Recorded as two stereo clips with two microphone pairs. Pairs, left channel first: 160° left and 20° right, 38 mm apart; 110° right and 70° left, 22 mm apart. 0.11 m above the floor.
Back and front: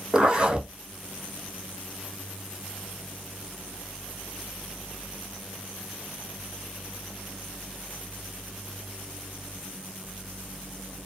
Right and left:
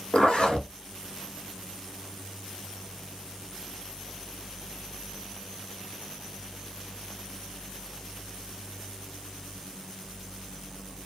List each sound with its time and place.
0.1 s a zipper: 80° right, 1.2 m